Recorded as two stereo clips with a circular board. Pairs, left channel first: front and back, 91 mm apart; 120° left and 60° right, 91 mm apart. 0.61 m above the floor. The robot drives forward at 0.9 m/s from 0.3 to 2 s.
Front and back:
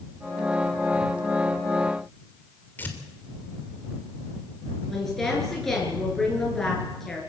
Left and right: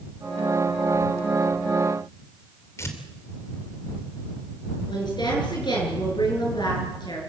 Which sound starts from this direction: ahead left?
Tearing paper, at 2.8 s.